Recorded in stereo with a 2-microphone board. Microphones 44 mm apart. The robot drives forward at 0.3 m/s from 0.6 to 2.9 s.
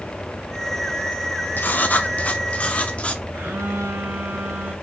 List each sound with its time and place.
1.6 s writing: 45° left (ahead or behind), 0.6 m; by 3.2 s 30° left (ahead or behind), 1.0 m
3.3 s a phone buzzing: 75° right (ahead or behind), 3 m